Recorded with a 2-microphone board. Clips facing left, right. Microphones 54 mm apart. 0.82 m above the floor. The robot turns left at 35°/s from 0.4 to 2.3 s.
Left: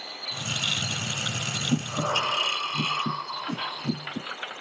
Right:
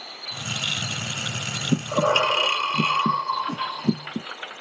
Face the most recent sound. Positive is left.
turn(degrees=5)  # may be behind; listen again after turning